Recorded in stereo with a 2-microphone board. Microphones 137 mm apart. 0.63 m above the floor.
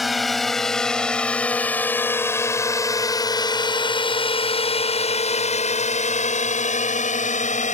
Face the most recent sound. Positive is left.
turn(degrees=65)  # may be behind; listen again after turning